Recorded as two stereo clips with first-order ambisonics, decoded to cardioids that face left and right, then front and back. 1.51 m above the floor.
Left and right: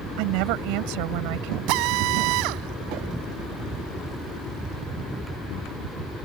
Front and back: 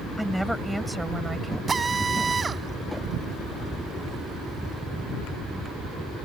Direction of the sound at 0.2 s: 90° right.